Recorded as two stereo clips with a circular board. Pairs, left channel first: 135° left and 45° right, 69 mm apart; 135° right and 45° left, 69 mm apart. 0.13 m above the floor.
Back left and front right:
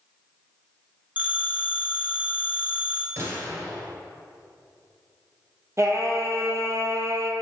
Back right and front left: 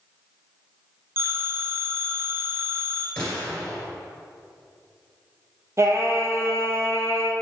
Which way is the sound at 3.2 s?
60° right.